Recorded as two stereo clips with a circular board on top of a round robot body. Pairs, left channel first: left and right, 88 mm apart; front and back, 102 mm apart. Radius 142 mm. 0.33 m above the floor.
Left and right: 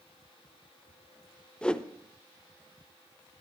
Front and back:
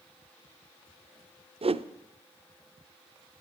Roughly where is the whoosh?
Behind.